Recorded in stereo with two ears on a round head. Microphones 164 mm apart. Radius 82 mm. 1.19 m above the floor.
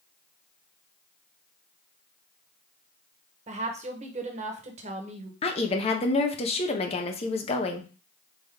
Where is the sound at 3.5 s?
40° right (ahead or behind), 1.0 m.